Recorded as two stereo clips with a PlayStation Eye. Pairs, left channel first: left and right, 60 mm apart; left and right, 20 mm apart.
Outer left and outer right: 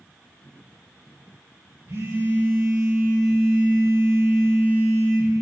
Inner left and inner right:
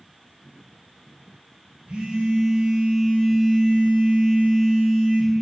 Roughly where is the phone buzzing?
Right.